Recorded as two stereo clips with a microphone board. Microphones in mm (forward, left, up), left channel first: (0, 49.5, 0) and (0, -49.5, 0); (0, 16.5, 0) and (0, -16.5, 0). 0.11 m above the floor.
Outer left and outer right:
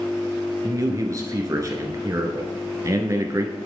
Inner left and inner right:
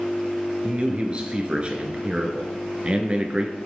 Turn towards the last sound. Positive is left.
turn(degrees=-35)  # may be behind; listen again after turning